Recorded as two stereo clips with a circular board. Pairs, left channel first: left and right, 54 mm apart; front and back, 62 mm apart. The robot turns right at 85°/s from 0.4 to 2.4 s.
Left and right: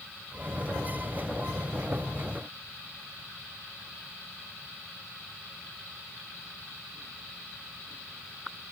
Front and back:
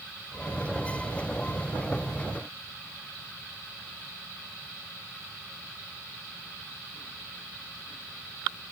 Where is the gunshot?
No gunshot in this recording.